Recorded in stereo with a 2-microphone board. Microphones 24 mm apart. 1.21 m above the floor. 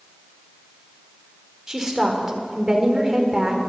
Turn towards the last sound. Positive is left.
turn(degrees=-25)  # may be behind; listen again after turning